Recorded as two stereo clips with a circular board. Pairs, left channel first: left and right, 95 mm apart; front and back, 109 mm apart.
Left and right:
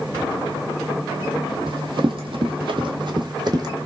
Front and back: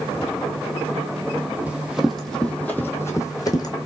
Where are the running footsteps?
105° right, 1.2 m; by 3.8 s 50° right, 1.4 m.